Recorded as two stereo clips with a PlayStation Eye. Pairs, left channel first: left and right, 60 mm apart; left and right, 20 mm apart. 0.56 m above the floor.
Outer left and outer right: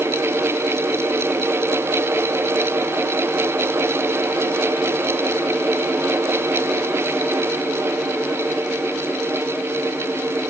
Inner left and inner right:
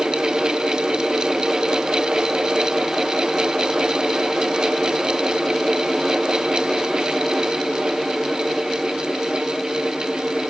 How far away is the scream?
I don't hear a scream.